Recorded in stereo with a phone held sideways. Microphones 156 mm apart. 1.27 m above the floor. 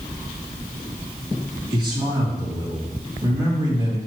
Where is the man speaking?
25° right (ahead or behind), 2.5 m.